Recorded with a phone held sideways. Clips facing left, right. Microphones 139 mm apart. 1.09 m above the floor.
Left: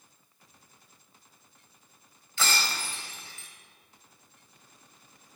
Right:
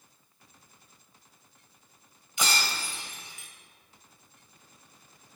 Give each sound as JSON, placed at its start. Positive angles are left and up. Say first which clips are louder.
{"t": 2.4, "sound": "breaking glass", "louder": "even", "side_deg": -15, "distance_m": 2.5}